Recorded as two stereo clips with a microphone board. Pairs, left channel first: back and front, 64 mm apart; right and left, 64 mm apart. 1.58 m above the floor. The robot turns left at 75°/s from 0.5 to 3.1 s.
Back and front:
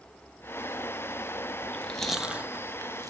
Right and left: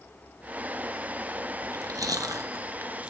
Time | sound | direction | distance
1.6 | chewing | 125° left | 0.9 m